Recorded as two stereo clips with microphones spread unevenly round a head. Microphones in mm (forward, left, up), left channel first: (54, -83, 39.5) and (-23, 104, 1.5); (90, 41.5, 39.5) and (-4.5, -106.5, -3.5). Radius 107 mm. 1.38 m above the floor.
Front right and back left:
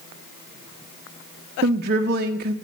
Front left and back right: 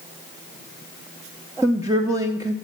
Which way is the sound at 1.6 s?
160° left.